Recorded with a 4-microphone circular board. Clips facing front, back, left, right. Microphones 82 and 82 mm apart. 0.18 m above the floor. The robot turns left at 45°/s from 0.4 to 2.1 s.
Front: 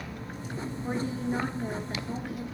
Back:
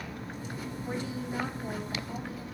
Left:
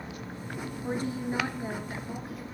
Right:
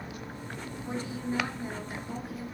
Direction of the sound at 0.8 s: 55° left.